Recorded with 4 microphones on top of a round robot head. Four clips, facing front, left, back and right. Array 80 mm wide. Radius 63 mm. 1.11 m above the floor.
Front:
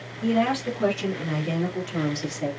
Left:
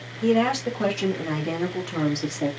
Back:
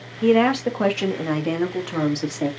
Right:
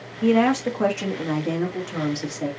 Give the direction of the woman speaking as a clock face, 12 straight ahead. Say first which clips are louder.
Right 2 dB, back 6 dB; 5 o'clock.